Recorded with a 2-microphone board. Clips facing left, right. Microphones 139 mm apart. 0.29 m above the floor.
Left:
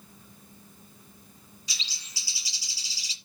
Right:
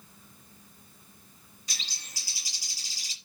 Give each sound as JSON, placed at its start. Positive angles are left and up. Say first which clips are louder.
{"t": 1.7, "sound": "a bird", "louder": "even", "side_deg": -50, "distance_m": 1.8}